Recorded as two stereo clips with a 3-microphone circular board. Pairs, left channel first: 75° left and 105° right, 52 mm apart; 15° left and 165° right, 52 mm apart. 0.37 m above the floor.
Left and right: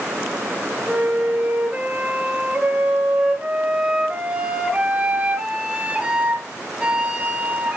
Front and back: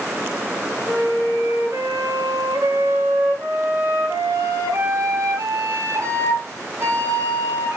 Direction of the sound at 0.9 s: 175° right.